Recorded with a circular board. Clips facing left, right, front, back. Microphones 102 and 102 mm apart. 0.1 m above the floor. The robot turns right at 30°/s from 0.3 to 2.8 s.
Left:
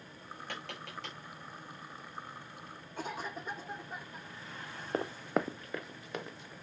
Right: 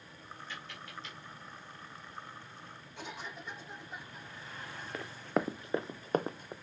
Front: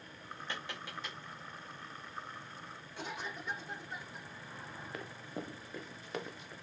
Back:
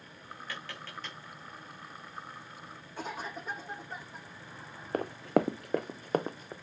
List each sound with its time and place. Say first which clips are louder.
0.5 s tapping: left 4 dB, even; 65° left, 4.5 m; by 1.2 s 85° left, 4.5 m
3.0 s a cough: left 5 dB, back 4 dB; 135° left, 6.5 m
4.9 s running footsteps: left 1 dB, back 17 dB; 140° left, 0.6 m; by 6.5 s 130° right, 1.3 m